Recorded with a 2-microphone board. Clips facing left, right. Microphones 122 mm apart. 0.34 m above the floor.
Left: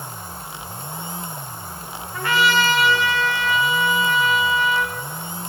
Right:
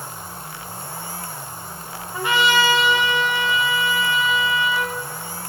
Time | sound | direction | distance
2.1 | a trumpet | 20° right (ahead or behind) | 1.3 m